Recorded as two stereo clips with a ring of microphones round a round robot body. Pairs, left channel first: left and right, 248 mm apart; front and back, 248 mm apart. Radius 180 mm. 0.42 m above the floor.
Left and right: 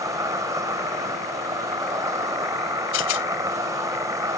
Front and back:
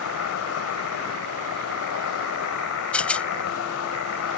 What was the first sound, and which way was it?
An insect, 15° right.